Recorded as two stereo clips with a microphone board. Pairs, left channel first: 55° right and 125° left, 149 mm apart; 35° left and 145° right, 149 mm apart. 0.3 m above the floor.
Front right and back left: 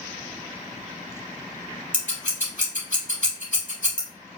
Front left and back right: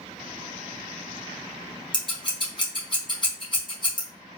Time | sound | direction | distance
1.9 | scissors | 20° right | 2 m